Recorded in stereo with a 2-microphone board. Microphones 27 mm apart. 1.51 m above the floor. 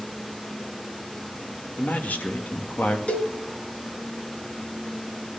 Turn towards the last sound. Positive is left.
turn(degrees=45)  # may be behind; listen again after turning